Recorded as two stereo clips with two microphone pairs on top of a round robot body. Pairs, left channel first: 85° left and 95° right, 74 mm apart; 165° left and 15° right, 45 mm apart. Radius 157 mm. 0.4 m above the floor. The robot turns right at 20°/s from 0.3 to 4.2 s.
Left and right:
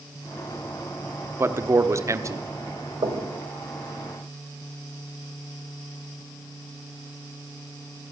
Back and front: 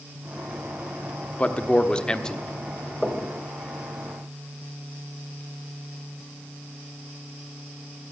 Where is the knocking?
110° right, 2 m; by 3.3 s 105° right, 2 m.